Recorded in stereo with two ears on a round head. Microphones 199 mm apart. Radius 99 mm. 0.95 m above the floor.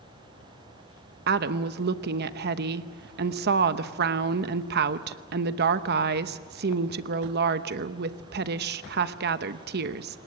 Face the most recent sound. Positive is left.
turn(degrees=-50)  # may be behind; listen again after turning